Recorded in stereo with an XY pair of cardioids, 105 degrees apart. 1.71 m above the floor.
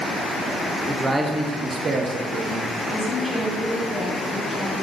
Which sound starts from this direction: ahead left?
A woman speaking, at 2.9 s.